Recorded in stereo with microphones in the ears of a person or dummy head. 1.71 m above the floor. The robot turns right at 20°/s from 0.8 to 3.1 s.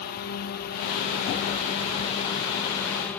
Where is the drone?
130° left; by 3.2 s 175° left.